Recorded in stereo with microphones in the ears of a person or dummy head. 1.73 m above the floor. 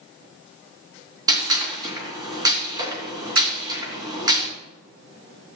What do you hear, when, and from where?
1.3 s a gunshot: 20° right (ahead or behind), 3 m